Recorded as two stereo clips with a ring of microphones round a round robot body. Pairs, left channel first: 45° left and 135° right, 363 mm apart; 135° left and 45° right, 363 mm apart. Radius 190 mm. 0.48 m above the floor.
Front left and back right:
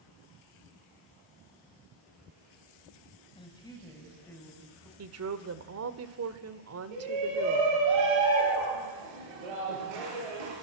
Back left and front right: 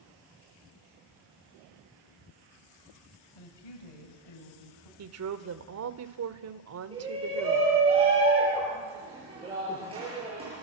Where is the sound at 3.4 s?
120° left, 3.5 m; by 4.9 s 135° left, 5 m.